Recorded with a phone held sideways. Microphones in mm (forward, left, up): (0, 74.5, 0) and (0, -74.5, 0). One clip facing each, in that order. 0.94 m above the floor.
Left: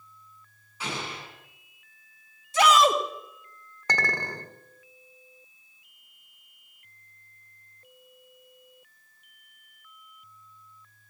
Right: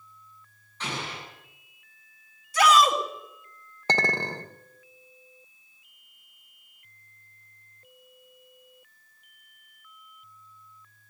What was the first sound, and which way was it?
An explosion, 10° left (ahead or behind).